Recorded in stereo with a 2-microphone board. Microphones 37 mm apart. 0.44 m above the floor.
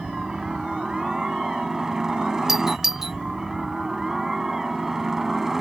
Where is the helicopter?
15° right (ahead or behind); by 5.6 s 10° right (ahead or behind).